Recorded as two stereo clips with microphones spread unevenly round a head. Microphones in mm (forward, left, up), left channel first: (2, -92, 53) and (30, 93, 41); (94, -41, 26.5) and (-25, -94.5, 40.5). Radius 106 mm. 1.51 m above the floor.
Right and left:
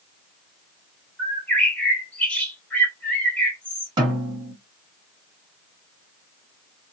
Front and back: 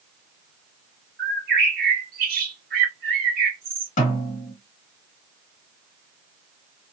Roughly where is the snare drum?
Ahead.